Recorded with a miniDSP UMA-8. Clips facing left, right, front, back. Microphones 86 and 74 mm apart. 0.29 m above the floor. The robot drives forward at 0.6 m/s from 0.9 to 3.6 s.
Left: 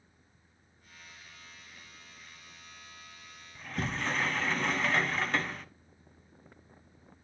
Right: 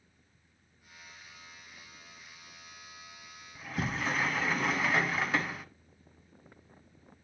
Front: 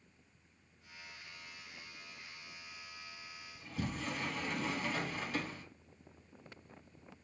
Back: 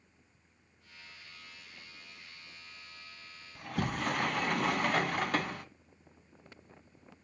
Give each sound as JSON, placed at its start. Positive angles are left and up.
{"t": 3.5, "sound": "a sliding door", "azimuth_deg": -175, "distance_m": 0.7}